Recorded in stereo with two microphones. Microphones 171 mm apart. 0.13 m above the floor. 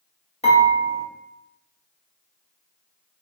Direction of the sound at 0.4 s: 40° left (ahead or behind).